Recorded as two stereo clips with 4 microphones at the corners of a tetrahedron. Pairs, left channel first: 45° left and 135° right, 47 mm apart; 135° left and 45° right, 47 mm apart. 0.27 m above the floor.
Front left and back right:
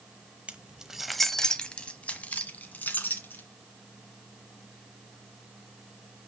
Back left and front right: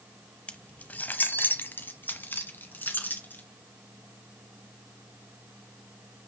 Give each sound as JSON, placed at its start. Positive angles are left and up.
{"t": 0.5, "sound": "keys jangling", "azimuth_deg": 180, "distance_m": 0.9}